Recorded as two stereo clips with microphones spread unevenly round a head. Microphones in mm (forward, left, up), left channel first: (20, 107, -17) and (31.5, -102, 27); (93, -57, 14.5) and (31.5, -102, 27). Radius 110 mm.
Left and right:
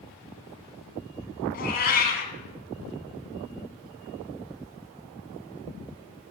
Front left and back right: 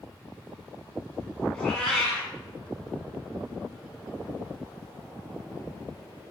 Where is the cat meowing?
130° left, 1.6 m.